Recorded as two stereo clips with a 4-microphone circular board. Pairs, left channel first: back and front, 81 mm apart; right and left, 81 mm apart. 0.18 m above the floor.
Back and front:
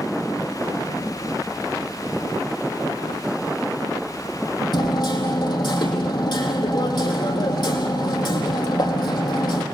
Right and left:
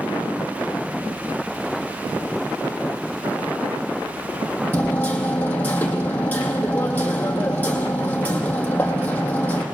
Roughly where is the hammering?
Behind.